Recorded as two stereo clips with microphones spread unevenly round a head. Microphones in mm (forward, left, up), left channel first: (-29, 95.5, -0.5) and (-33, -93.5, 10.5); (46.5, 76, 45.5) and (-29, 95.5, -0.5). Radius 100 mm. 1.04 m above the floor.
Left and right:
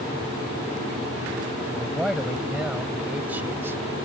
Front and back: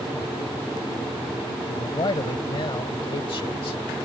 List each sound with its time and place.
1.7 s a man speaking: straight ahead; by 3.8 s 15° right